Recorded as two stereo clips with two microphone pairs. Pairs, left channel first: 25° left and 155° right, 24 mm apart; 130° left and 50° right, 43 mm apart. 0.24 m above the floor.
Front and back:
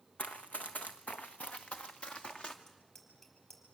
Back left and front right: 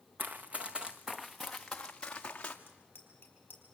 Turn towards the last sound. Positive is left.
turn(degrees=90)